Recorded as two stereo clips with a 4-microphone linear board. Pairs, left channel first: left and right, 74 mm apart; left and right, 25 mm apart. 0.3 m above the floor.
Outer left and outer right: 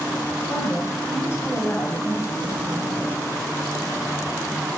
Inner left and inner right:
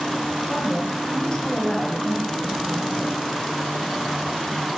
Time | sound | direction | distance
0.5 | a woman speaking | 35° left (ahead or behind) | 1.7 m